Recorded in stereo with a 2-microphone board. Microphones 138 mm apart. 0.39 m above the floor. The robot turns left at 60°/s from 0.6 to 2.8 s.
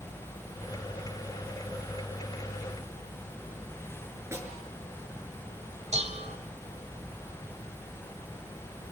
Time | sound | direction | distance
4.3 | a snare drum | 20° right (ahead or behind) | 6 m
5.9 | dishes clattering | 55° right (ahead or behind) | 1.4 m